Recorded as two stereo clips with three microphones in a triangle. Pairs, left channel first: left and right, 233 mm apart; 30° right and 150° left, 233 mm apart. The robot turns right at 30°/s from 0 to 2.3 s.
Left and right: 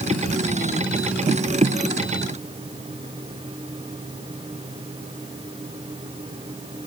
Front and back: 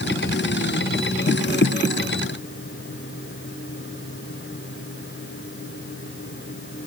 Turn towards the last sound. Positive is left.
No sound to turn to.